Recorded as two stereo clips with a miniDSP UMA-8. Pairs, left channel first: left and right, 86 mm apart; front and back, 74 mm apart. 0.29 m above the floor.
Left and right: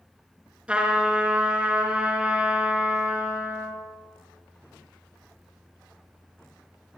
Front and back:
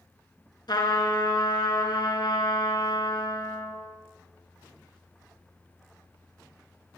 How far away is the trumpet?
About 3.5 m.